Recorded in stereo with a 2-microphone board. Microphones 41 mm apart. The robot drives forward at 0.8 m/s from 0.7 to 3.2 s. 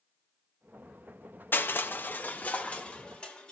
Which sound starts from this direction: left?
Crushing, at 1.5 s.